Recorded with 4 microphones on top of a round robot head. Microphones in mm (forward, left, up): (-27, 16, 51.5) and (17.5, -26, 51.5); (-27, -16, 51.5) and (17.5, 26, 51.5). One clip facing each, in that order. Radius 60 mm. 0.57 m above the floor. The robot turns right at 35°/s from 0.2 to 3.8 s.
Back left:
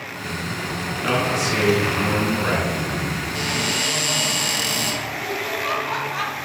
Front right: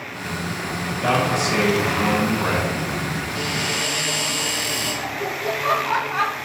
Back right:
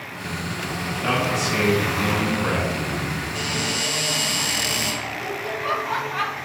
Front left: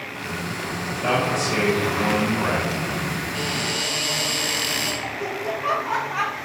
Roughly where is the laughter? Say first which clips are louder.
Front right 1 dB, front left 1 dB; ahead.